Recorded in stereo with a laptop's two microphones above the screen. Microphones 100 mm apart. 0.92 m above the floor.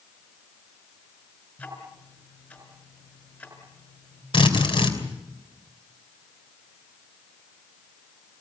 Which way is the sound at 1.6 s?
15° left (ahead or behind).